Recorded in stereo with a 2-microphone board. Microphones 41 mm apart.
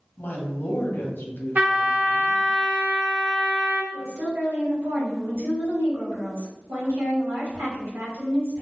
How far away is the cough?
No cough in this recording.